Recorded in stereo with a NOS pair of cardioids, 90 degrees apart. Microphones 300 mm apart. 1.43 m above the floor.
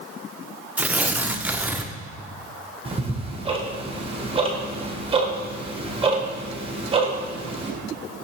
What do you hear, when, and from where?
0.8 s tearing paper: 5° right, 0.5 m
2.9 s ticking: 20° right, 1.2 m